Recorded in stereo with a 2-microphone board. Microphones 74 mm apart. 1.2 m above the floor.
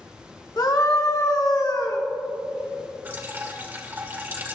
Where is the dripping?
30° right (ahead or behind), 1.7 m.